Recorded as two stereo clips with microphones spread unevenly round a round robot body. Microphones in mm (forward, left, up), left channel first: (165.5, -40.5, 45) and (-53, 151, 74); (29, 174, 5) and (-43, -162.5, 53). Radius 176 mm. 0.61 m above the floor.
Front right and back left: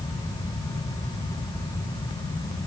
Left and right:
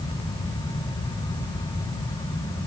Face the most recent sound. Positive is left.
No sound to turn to.